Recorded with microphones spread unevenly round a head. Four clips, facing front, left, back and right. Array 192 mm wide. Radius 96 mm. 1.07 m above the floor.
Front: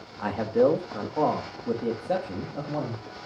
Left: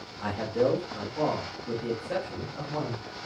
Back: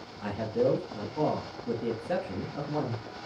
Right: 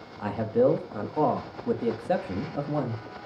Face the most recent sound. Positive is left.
turn(degrees=-70)